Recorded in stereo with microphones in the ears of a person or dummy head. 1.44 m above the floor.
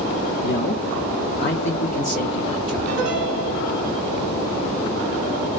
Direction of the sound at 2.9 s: 45° right (ahead or behind).